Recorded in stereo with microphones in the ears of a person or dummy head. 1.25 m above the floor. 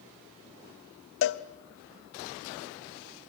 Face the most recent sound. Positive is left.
turn(degrees=60)  # may be behind; listen again after turning